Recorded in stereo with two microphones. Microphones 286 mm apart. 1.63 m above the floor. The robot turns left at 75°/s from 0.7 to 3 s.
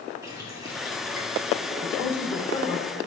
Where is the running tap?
15° right, 5.5 m; by 1.7 s 90° right, 5.5 m.